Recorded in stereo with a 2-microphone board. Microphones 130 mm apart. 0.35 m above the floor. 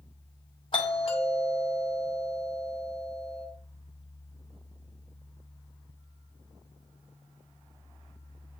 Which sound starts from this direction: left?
A doorbell, at 0.7 s.